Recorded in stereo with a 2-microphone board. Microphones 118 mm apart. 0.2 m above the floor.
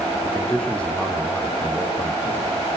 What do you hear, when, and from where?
0.2 s a man speaking: 5° left (ahead or behind), 7.5 m; by 2.5 s 15° left (ahead or behind), 9 m